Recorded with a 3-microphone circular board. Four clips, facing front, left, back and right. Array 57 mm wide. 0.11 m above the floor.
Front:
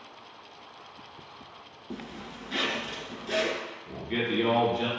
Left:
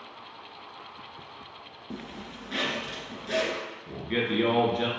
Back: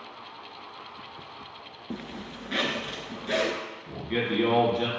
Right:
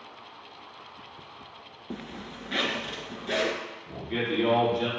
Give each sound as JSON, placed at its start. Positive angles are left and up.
{"t": 1.9, "sound": "a zipper", "azimuth_deg": -135, "distance_m": 0.9}
{"t": 3.9, "sound": "a man speaking", "azimuth_deg": 100, "distance_m": 1.5}